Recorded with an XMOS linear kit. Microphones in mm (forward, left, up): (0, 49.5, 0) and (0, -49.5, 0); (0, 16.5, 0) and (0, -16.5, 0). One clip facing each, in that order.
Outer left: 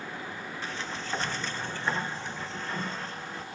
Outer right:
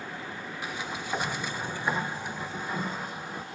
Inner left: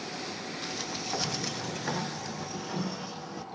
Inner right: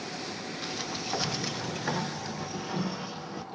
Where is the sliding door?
10° right (ahead or behind), 0.7 m.